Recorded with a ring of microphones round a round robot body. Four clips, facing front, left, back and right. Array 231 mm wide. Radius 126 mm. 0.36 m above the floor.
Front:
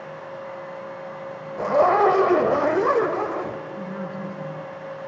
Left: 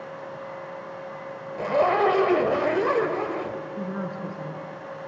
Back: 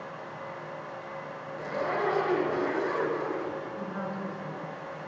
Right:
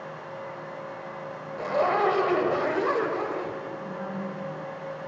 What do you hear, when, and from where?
1.6 s a zipper: 20° left, 1.2 m
3.8 s a woman speaking: 70° left, 4.5 m